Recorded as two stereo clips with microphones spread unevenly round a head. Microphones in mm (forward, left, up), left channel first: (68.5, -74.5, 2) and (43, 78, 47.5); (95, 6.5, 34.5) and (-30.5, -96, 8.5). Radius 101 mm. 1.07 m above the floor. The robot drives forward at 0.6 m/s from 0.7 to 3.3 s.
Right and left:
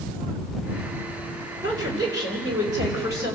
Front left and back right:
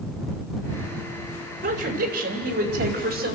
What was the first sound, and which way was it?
A woman speaking, 175° left.